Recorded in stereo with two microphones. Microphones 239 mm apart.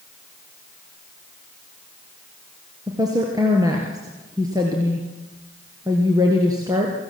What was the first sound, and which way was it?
A woman speaking, 15° right (ahead or behind).